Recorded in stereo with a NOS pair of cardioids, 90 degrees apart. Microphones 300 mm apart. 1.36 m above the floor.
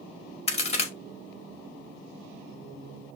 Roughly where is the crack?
Ahead.